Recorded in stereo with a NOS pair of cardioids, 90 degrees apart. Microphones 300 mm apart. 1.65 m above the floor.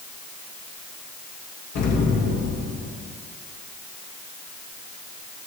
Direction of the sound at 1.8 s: 60° left.